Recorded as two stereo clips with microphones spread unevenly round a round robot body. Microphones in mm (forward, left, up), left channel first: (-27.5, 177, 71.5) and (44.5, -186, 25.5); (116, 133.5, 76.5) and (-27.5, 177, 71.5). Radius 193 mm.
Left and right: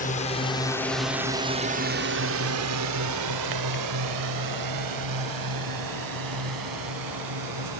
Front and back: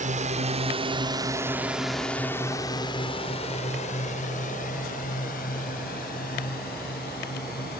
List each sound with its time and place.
0.0 s a drone: 170° left; by 7.8 s 50° right